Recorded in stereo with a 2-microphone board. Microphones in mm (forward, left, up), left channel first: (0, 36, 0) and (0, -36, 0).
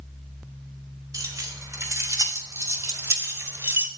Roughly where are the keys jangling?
Right.